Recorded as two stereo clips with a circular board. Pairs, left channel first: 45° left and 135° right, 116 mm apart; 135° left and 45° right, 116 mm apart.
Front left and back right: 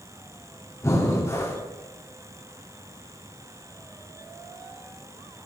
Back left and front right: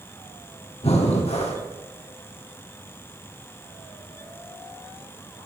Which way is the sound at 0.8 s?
110° left.